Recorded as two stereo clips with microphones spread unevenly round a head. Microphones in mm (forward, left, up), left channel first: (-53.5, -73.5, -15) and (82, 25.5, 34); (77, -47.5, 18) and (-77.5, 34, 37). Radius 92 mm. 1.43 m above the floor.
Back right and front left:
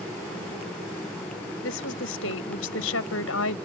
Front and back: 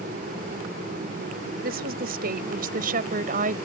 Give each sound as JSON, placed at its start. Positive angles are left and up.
{"t": 1.6, "sound": "a woman speaking", "azimuth_deg": -170}